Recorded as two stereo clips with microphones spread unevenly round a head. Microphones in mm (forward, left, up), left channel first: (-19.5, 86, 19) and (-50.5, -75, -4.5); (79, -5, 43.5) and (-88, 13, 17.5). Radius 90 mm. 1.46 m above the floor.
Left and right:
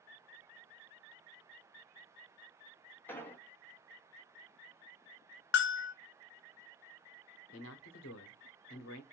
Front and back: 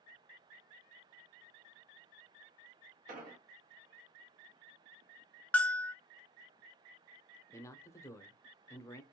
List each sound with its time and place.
3.1 s an explosion: 140° left, 0.9 m
5.5 s a bell: 75° left, 0.5 m
7.5 s a man speaking: 70° left, 0.8 m